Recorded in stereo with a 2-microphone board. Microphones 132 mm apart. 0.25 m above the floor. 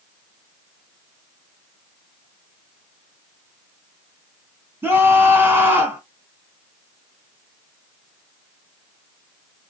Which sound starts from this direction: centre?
A scream, at 4.8 s.